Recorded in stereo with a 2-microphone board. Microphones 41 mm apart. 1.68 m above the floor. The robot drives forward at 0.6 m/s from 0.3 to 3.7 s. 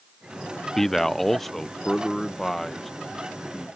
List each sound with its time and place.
0.8 s a man speaking: 10° left (ahead or behind); by 3.7 s 5° left (ahead or behind)